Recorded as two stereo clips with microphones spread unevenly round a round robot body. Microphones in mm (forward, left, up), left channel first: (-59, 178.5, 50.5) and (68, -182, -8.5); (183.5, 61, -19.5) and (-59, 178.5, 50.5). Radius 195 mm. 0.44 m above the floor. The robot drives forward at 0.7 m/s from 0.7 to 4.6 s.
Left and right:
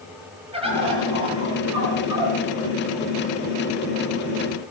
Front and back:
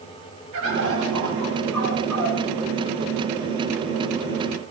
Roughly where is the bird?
Behind right.